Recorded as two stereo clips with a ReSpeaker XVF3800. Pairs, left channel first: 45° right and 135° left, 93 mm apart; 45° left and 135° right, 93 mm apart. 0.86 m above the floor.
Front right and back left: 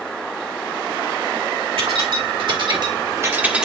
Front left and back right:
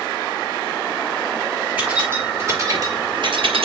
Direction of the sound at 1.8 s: 150° left.